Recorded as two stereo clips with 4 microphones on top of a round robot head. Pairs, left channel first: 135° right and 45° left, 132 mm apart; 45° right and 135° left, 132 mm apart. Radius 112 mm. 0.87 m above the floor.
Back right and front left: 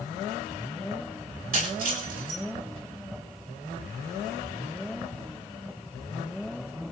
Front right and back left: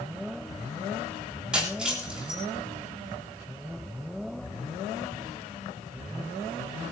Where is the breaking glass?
55° left, 9.5 m.